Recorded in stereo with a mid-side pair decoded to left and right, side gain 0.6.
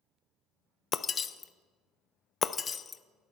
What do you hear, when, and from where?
0.9 s breaking glass: 30° left, 0.5 m